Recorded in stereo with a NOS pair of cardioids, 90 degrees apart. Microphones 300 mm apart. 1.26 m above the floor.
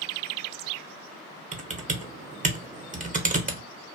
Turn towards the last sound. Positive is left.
turn(degrees=-25)